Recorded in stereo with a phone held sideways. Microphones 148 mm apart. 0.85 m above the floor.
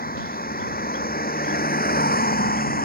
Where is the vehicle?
85° left; by 2.9 s 90° left.